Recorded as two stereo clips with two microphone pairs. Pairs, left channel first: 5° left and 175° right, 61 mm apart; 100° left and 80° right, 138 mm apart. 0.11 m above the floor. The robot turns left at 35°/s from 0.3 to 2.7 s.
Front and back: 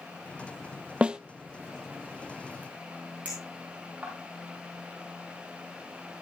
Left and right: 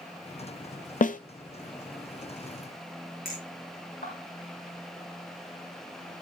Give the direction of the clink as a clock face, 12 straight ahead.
8 o'clock.